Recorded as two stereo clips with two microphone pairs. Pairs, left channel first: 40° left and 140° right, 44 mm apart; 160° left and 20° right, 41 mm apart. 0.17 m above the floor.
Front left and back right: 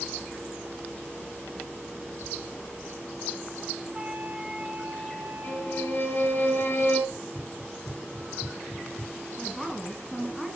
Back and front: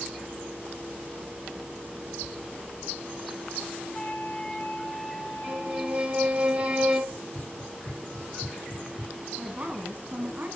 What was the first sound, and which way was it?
A flute, straight behind.